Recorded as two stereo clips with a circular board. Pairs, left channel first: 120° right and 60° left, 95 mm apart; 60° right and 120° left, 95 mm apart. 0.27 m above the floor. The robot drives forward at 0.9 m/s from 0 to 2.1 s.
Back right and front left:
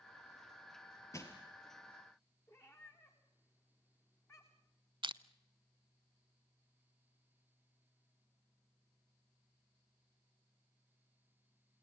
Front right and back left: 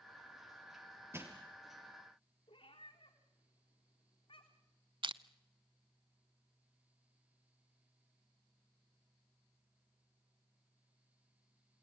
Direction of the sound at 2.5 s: 60° right.